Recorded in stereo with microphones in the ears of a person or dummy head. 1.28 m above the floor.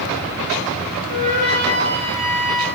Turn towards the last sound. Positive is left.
turn(degrees=-45)  # may be behind; listen again after turning